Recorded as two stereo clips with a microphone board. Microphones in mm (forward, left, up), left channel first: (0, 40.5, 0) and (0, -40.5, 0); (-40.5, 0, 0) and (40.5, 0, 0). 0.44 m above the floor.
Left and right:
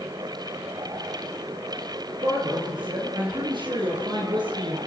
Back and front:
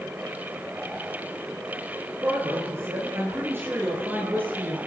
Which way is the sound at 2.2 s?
60° right.